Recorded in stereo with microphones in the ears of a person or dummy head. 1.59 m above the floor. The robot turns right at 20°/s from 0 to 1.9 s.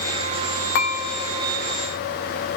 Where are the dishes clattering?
55° left (ahead or behind), 1.1 m.